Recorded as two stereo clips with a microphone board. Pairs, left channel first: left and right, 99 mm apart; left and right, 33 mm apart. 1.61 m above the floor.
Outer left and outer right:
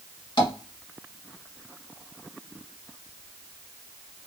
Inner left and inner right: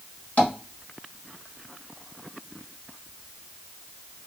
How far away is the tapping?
About 1.4 m.